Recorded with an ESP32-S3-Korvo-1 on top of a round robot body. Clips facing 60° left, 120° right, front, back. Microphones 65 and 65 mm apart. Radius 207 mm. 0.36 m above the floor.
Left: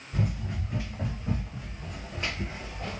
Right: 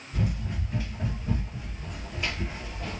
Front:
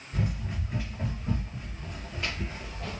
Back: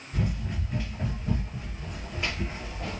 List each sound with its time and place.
0.1 s running footsteps: 70° left, 1.6 m; by 3.0 s 125° left, 1.7 m